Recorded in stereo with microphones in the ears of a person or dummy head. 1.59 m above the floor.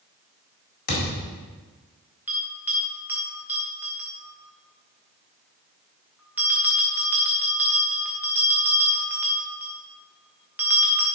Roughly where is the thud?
Left.